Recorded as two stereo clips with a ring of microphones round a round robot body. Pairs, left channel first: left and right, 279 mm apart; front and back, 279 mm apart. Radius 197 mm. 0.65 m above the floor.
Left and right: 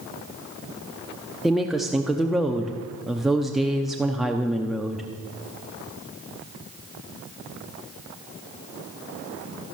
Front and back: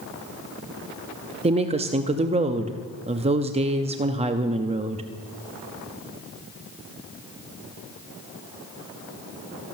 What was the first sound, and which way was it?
A woman speaking, straight behind.